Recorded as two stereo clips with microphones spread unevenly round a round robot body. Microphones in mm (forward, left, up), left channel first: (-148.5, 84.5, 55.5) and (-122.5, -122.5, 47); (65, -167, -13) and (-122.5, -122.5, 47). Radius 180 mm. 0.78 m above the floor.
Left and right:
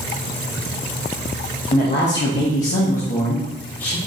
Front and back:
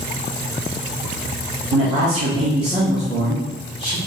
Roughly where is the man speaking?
Behind left.